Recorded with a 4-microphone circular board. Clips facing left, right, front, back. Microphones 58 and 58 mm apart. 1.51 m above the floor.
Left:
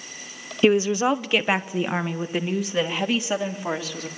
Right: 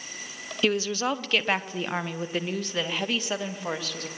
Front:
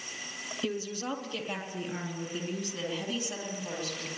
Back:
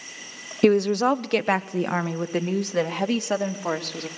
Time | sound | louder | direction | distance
0.6 | a woman speaking | left 7 dB, back 17 dB | 160° left | 0.7 m